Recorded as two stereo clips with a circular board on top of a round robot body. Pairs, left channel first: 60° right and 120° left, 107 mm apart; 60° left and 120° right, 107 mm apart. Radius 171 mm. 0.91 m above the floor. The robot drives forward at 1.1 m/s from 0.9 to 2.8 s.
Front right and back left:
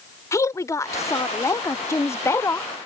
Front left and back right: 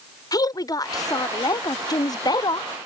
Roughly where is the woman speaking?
Ahead.